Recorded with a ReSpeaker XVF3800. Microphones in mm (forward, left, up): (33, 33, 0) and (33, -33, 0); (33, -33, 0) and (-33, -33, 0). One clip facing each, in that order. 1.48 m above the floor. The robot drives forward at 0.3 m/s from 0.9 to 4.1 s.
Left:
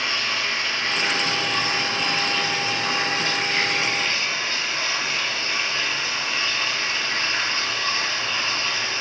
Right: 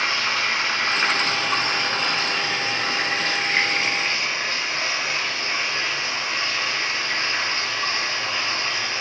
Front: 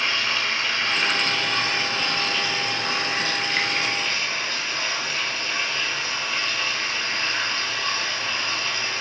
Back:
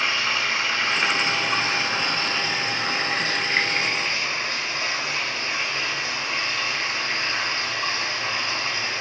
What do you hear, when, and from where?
0.0 s running water: 115° right, 1.7 m; by 9.0 s 140° right, 2 m